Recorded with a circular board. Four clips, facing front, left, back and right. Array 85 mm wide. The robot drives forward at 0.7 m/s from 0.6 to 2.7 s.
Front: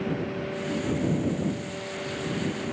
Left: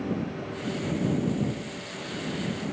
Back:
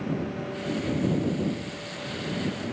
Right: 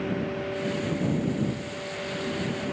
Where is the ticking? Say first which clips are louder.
Right 2 dB, back 1 dB; 165° left, 3 m.